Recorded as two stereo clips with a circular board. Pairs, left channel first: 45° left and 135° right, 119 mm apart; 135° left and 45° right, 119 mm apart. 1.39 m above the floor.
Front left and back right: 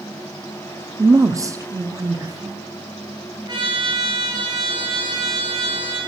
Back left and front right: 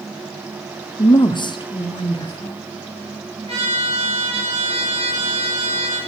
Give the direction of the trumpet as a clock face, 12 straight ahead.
3 o'clock.